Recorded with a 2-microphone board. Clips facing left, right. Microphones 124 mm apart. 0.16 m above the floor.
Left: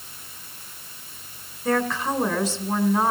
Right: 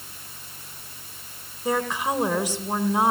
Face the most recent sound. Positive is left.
turn(degrees=-10)  # may be behind; listen again after turning